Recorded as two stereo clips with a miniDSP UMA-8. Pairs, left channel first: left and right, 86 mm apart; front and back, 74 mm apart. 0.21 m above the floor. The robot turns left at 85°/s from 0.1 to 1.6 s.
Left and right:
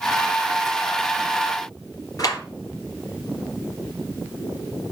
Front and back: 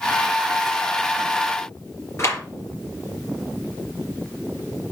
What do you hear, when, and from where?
2.2 s a clap: 50° left, 3.5 m